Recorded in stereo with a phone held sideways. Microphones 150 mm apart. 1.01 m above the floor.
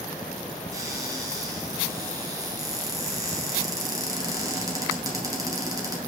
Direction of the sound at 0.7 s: 25° right (ahead or behind).